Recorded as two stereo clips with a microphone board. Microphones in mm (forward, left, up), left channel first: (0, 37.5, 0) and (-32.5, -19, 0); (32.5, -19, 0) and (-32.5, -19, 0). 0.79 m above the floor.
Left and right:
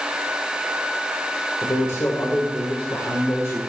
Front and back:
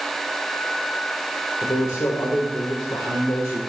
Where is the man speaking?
20° left, 2.0 m.